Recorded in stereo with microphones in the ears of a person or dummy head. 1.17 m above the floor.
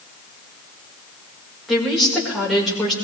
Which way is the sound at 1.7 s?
Centre (ahead or behind).